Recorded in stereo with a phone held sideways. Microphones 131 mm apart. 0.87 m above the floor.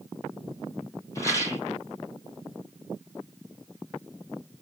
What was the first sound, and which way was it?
A rattle, 25° left (ahead or behind).